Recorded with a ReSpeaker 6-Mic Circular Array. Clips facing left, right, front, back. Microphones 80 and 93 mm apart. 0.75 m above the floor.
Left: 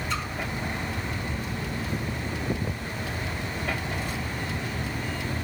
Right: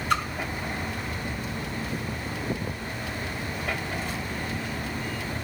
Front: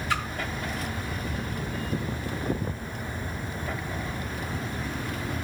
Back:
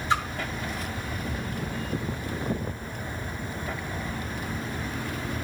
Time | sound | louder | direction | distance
0.1 | a splash | right 8 dB, back 4 dB | 115° right | 0.9 m